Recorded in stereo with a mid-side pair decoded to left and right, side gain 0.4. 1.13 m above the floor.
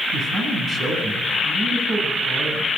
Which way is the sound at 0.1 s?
60° right.